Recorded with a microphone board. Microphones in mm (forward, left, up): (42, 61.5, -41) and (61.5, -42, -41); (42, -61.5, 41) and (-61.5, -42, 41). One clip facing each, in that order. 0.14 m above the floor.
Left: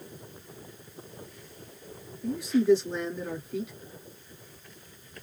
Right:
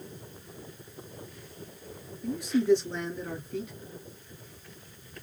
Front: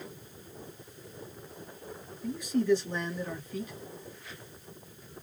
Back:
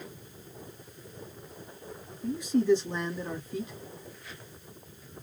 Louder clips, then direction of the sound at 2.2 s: Left 2 dB, back 2 dB; 170° right.